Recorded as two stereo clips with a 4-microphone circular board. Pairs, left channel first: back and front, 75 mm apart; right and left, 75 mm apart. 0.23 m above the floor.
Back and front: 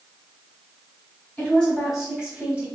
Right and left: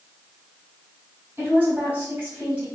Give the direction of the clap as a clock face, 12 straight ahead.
I don't hear a clap.